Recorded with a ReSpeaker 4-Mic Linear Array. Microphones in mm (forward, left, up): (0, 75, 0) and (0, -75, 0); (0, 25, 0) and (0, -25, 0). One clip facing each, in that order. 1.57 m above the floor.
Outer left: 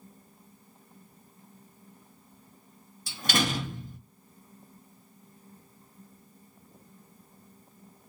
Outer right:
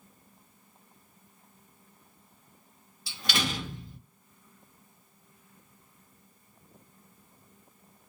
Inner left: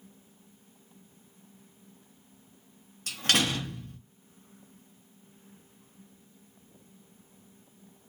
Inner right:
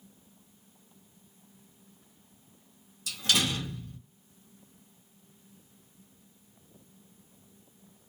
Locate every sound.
3.1 s a door slam: 45° left (ahead or behind), 0.9 m